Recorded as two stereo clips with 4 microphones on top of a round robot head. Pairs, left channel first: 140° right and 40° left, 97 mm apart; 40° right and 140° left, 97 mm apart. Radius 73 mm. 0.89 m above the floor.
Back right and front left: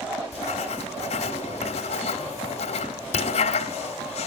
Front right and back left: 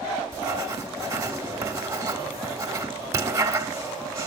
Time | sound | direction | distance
0.3 | writing | 160° right | 1.6 m